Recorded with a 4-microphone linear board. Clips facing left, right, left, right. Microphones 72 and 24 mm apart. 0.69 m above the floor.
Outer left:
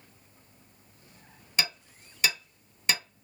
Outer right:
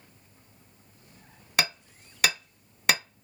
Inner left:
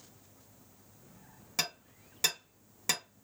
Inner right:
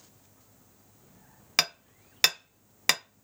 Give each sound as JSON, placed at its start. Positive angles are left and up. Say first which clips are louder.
{"t": 1.6, "sound": "hammering", "louder": "outer right 4 dB, inner right 8 dB", "side_deg": -65, "distance_m": 0.6}